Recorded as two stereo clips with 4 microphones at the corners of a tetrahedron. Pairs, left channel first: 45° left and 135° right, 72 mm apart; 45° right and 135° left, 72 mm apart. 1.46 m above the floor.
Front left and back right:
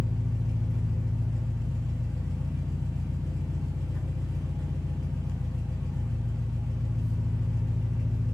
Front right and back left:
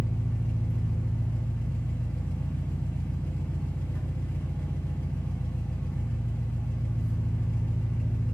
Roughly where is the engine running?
Ahead right.